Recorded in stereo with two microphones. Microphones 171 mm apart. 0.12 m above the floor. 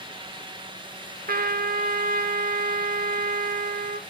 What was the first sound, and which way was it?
A trumpet, 60° right (ahead or behind).